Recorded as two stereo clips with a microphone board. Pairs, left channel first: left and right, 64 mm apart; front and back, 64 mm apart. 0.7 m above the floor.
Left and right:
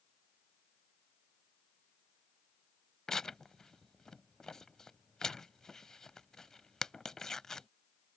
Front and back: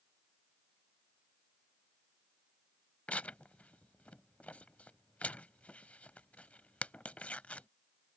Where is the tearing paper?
25° left.